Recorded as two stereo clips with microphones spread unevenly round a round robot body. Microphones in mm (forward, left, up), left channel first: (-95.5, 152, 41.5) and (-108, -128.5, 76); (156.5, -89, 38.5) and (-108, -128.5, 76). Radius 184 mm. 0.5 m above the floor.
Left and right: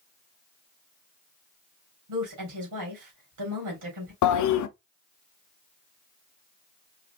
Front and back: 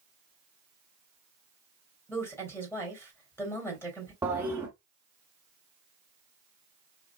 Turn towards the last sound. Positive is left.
turn(degrees=105)